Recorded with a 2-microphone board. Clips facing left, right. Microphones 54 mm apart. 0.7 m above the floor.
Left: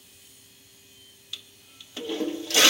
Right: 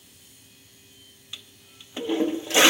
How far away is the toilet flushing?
About 0.7 m.